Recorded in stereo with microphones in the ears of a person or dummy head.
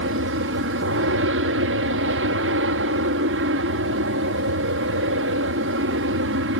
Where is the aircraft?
60° right (ahead or behind).